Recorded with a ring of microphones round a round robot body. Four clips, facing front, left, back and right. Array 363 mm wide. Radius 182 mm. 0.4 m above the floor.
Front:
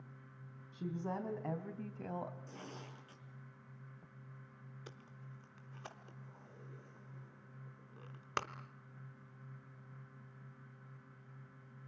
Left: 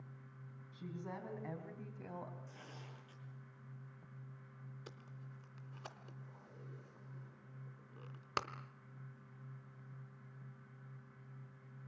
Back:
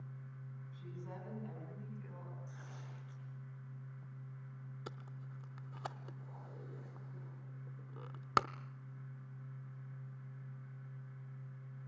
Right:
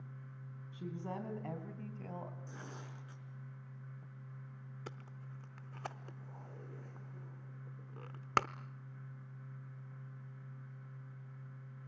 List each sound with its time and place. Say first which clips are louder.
0.7 s a woman speaking: right 4 dB, front 11 dB; 25° right, 4.5 m; by 2.4 s straight ahead, 3 m
2.5 s tearing paper: right 5 dB, front 3 dB; 45° right, 5 m
4.9 s tape being pulled: right 5 dB, back 6 dB; 135° right, 0.8 m